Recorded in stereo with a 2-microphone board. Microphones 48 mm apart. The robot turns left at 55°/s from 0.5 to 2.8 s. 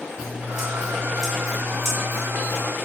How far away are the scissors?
About 1.2 m.